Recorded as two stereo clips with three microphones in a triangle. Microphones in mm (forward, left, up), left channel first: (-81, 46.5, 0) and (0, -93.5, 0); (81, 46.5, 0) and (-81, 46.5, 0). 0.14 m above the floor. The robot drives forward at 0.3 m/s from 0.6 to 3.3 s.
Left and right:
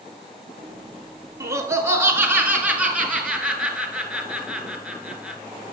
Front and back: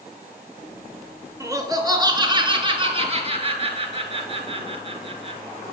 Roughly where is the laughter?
Behind right.